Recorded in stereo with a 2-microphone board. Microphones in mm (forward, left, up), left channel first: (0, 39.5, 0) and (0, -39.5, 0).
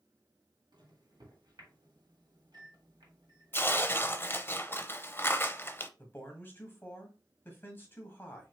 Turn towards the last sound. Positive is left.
turn(degrees=30)  # may be behind; listen again after turning